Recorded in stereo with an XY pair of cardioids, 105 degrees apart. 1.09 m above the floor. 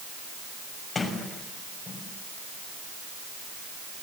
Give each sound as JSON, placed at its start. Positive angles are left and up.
{"t": 0.9, "sound": "a sliding door", "azimuth_deg": 30, "distance_m": 6.0}